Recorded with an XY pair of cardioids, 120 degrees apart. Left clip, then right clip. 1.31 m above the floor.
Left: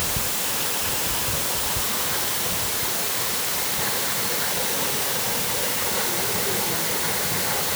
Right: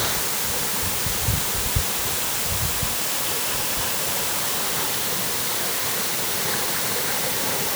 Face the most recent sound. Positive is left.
No sound to turn to.